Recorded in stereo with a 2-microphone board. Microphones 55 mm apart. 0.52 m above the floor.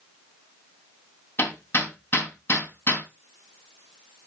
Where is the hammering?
50° left (ahead or behind), 2.5 m.